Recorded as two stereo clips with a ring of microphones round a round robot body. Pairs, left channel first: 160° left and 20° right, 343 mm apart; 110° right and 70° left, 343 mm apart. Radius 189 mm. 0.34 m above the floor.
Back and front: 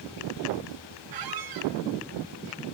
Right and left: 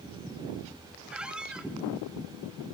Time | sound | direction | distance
1.1 | a squeak | 20° right | 1.4 m